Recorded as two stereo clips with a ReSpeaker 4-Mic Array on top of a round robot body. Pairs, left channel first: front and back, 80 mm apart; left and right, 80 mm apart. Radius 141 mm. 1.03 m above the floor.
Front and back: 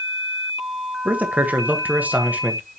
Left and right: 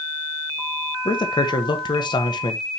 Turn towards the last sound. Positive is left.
turn(degrees=110)